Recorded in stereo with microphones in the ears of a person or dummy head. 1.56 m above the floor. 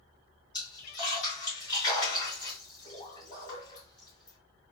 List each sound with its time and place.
0.5 s a splash: 20° left (ahead or behind), 2 m